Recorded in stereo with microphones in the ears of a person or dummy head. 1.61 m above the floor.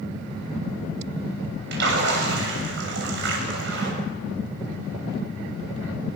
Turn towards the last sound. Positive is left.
turn(degrees=-65)  # may be behind; listen again after turning